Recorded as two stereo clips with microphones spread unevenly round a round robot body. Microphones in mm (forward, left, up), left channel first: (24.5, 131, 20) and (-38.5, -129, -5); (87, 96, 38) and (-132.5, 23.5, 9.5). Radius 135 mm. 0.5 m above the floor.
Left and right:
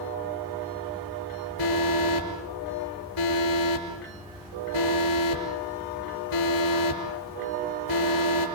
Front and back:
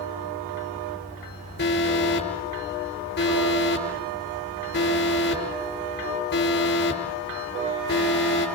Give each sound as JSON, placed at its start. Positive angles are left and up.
{"t": 1.6, "sound": "an alarm", "azimuth_deg": 65, "distance_m": 6.0}